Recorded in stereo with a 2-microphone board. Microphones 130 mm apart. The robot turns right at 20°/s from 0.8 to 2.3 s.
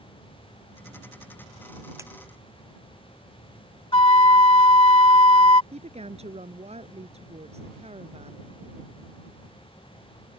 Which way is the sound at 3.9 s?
40° left (ahead or behind).